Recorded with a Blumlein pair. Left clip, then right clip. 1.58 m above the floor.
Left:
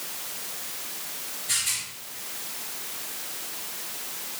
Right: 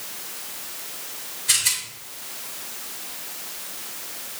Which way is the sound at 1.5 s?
55° right.